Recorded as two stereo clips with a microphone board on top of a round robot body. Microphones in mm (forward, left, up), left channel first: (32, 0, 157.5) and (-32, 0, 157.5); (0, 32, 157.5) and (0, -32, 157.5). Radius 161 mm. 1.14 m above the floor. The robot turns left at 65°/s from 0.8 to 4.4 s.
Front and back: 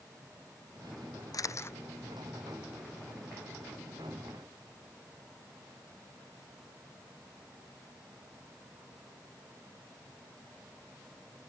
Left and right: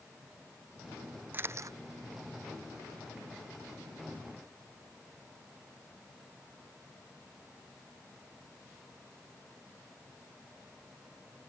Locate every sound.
1.3 s a camera shutter: 30° right; by 1.8 s 55° right